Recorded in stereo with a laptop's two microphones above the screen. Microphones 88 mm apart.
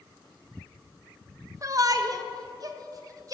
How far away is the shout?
About 0.8 m.